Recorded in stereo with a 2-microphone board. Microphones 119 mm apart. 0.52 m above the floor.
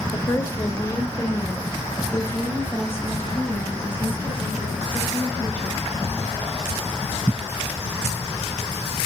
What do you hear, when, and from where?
0.1 s a woman speaking: 30° left (ahead or behind), 1.2 m; by 5.8 s 15° left (ahead or behind), 4.5 m